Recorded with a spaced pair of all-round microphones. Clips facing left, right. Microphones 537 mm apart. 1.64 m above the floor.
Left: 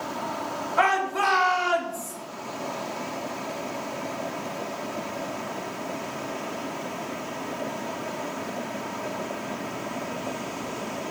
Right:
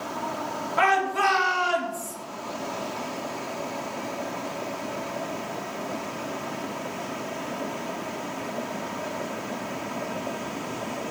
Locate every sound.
0.8 s a shout: 50° right (ahead or behind), 4 m